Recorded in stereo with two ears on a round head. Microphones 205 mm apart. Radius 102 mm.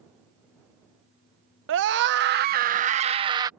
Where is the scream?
60° right (ahead or behind); by 3.5 s 15° right (ahead or behind).